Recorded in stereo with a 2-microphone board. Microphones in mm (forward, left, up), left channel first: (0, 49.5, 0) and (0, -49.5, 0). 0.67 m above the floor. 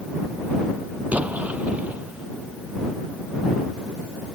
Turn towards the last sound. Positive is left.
turn(degrees=-15)  # may be behind; listen again after turning